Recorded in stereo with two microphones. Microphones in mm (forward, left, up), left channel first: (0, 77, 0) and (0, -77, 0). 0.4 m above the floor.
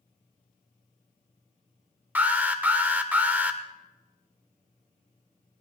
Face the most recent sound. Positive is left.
turn(degrees=-10)  # may be behind; listen again after turning